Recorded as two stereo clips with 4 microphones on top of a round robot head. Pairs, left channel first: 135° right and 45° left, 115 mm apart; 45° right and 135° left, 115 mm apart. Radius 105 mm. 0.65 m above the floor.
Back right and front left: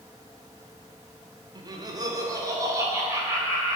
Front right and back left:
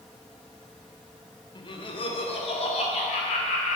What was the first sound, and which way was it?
Laughter, straight ahead.